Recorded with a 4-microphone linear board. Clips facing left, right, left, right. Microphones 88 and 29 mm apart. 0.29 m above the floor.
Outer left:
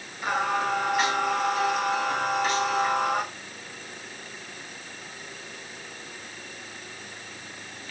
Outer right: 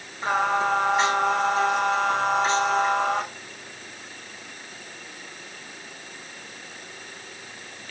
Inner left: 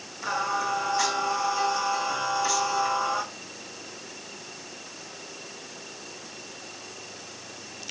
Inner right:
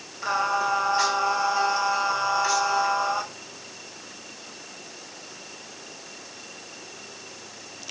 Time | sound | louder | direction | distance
0.2 | singing | outer right 3 dB, inner right 3 dB | 30° right (ahead or behind) | 6 m